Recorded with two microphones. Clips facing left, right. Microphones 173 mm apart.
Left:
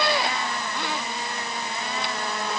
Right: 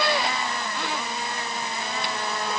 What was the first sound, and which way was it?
Only background noise.